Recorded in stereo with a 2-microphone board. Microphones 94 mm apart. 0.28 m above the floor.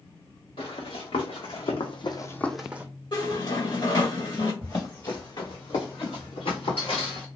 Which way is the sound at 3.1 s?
50° left (ahead or behind).